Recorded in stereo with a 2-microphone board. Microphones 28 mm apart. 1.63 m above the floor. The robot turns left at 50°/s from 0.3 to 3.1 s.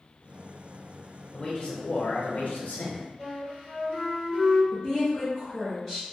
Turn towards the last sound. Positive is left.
turn(degrees=0)  # may be behind; listen again after turning